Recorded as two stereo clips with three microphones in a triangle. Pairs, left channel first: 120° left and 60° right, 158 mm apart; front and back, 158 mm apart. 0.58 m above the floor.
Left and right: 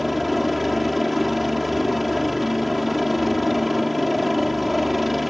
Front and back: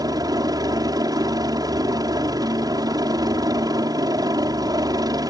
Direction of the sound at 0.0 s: 150° right.